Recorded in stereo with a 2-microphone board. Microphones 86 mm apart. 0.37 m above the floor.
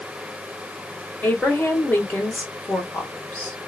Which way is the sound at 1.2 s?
20° left (ahead or behind).